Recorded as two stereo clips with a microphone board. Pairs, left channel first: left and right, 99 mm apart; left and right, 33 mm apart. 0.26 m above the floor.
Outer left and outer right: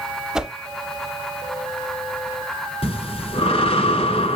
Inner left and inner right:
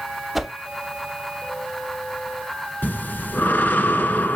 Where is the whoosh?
5° right (ahead or behind), 0.6 m.